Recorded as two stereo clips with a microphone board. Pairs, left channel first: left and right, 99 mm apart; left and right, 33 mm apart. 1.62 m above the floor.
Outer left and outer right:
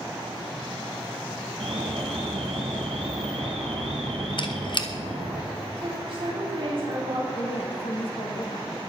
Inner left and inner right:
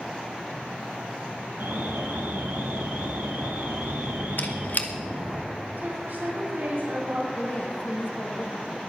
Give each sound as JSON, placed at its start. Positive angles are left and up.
{"t": 1.6, "sound": "an alarm", "side_deg": -80, "distance_m": 3.5}
{"t": 4.4, "sound": "a squeak", "side_deg": 55, "distance_m": 1.4}
{"t": 5.8, "sound": "a woman speaking", "side_deg": -55, "distance_m": 3.5}
{"t": 7.3, "sound": "a woman speaking", "side_deg": 70, "distance_m": 3.0}